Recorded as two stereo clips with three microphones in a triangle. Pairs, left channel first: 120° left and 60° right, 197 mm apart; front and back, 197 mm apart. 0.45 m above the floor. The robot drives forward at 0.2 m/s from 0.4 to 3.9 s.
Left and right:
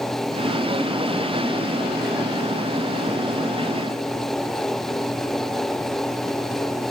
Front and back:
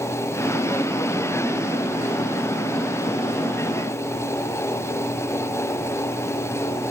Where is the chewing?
I don't hear chewing.